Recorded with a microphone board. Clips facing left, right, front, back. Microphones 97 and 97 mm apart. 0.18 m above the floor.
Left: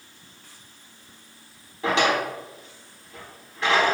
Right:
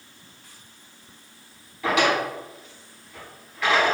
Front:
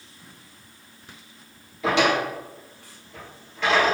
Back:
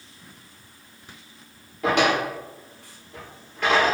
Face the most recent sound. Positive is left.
turn(degrees=150)